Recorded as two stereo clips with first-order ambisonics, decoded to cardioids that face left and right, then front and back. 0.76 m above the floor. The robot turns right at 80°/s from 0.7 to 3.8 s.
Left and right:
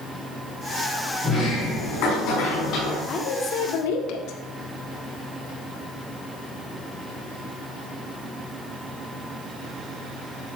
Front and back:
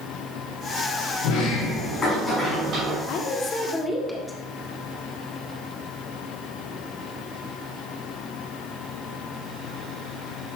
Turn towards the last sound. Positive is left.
turn(degrees=85)